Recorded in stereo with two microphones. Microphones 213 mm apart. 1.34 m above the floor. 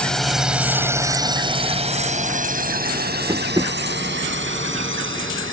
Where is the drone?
5° left (ahead or behind); by 5.5 s 70° right (ahead or behind).